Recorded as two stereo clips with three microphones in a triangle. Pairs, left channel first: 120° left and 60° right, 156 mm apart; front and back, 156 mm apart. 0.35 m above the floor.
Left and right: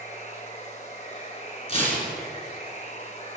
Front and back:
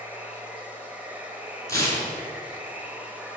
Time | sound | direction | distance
0.0 | running water | 100° left | 1.3 m
1.7 | tearing paper | 70° left | 3.5 m